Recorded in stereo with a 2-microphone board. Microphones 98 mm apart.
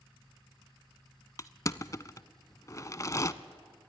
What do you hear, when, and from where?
1.4 s crushing: 35° left (ahead or behind), 0.6 m